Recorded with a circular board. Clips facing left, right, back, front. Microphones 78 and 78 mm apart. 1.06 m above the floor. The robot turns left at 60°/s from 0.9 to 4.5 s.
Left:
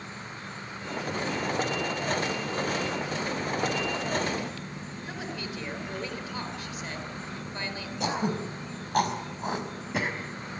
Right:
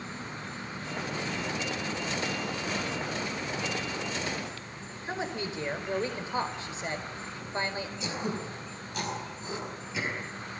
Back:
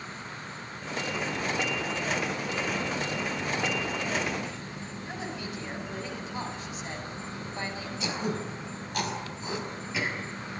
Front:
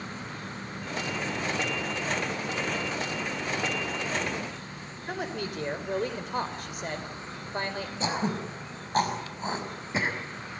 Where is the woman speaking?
30° right, 5 m.